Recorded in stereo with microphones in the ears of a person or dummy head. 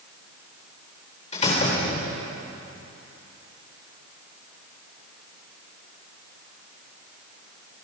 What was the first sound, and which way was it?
A door slam, 40° left (ahead or behind).